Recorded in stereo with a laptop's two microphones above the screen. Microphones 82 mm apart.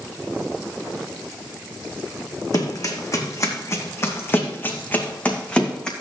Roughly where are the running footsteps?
Left.